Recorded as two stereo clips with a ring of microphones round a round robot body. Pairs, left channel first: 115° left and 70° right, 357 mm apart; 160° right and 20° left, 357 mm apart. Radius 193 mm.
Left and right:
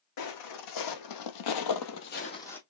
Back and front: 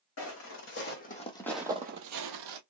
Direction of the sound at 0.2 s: 150° left.